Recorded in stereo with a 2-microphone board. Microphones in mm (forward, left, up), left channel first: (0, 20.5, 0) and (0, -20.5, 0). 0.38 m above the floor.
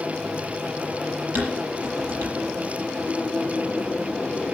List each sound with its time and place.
1.4 s dishes clattering: 65° right (ahead or behind), 6 m